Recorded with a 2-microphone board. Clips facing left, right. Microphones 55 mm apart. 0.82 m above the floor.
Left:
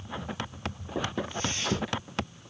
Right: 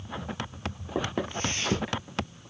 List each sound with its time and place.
0.9 s footsteps: 60° right (ahead or behind), 1.6 m; by 2.5 s 15° right (ahead or behind), 0.8 m